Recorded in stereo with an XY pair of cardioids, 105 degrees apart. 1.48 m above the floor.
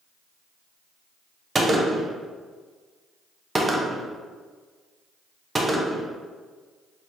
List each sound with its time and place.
1.6 s a gunshot: 25° right, 0.6 m